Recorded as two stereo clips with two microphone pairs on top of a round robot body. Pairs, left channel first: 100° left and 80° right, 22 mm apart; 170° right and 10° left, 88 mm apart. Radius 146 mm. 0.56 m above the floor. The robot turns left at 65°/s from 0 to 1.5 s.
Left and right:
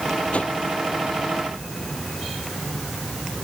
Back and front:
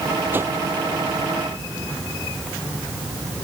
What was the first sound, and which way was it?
A whoosh, 80° left.